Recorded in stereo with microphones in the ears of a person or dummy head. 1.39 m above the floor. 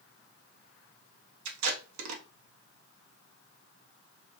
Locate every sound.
1.4 s tape being pulled: 80° right, 0.6 m